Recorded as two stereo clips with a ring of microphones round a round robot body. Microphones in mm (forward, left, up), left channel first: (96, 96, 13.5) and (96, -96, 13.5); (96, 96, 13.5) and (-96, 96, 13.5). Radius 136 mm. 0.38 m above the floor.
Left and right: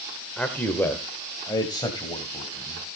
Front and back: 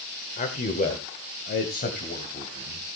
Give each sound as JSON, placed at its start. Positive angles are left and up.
{"t": 0.4, "sound": "a man speaking", "azimuth_deg": 5, "distance_m": 1.4}